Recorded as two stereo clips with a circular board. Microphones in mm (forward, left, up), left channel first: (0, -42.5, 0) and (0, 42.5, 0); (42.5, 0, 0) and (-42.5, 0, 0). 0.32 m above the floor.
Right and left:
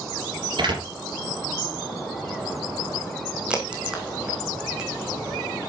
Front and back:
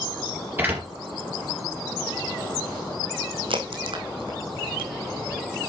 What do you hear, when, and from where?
0.6 s a door slam: 115° left, 4.5 m
3.5 s a crack: 170° left, 3 m